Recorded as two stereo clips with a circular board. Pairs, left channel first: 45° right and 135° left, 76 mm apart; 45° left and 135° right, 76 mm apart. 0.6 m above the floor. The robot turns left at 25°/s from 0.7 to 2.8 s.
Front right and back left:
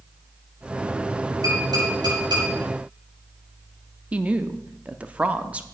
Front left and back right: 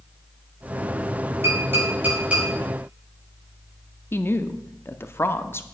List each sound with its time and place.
1.4 s tapping: 175° left, 6.5 m; by 2.5 s 150° left, 6.5 m
4.1 s a woman speaking: 75° left, 0.7 m